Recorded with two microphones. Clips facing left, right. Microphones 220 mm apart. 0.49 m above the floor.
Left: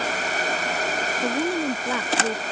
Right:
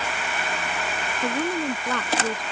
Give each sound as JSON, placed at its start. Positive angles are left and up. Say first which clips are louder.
{"t": 1.2, "sound": "a woman speaking", "louder": "left 1 dB", "side_deg": 10}